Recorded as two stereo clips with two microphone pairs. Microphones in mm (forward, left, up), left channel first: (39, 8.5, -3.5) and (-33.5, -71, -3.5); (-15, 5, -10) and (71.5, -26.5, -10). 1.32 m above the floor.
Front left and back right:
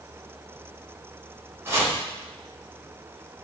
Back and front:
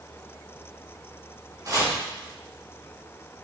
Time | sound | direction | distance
1.6 | chopping | 65° right | 4 m